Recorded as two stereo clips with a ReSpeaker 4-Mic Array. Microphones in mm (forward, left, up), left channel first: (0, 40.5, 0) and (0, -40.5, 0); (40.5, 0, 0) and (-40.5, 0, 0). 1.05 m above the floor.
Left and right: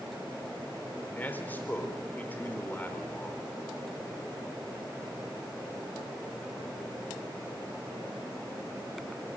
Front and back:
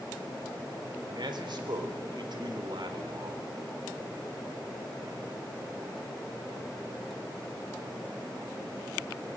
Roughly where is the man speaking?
Behind left.